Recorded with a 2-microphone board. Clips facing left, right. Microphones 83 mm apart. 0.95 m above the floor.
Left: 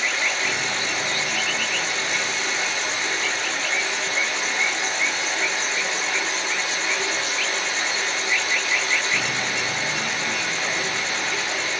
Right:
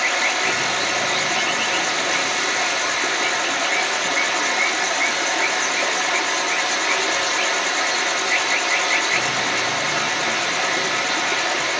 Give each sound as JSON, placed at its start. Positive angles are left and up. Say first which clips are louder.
{"t": 0.0, "sound": "running water", "louder": "right 4 dB", "side_deg": -80, "distance_m": 1.0}